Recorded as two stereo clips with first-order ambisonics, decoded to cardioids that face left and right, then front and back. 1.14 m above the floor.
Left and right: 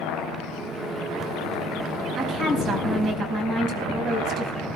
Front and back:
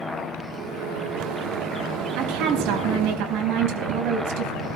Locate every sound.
0.5 s a microwave: 160° right, 1.3 m
2.2 s a woman speaking: 150° right, 4.5 m